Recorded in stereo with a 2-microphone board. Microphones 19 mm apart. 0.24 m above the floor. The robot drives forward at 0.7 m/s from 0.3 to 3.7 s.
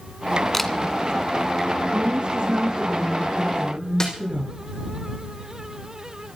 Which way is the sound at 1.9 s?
60° right (ahead or behind).